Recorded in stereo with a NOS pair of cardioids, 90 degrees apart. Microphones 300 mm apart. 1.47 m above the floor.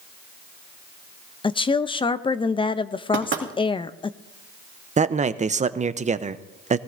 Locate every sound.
1.4 s a woman speaking: 15° left, 0.5 m
3.1 s knocking: 40° right, 2 m
5.0 s a man speaking: 25° right, 0.7 m